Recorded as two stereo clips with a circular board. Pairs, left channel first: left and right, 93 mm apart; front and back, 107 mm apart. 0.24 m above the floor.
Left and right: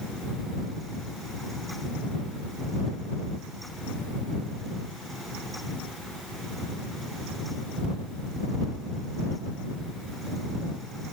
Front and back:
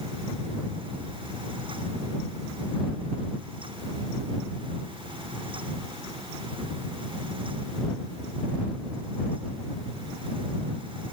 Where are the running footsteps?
I don't hear running footsteps.